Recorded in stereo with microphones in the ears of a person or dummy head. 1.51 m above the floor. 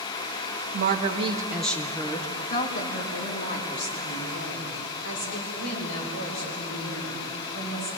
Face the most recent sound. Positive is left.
turn(degrees=70)  # may be behind; listen again after turning